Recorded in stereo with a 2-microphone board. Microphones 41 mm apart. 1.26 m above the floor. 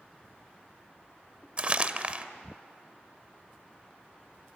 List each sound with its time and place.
1.6 s crumpling: 30° right (ahead or behind), 1.1 m